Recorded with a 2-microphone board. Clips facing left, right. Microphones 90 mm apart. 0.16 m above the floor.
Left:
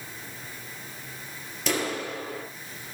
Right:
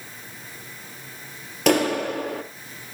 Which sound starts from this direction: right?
A clap, at 1.7 s.